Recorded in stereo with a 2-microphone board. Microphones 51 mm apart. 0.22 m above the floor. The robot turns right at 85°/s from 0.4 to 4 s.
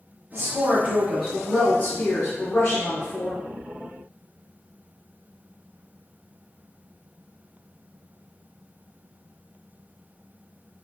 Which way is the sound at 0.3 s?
70° right.